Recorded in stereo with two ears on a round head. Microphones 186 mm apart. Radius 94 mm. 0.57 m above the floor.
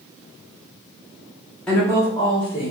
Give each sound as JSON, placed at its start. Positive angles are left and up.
{"t": 1.7, "sound": "a woman speaking", "side_deg": 5, "distance_m": 1.3}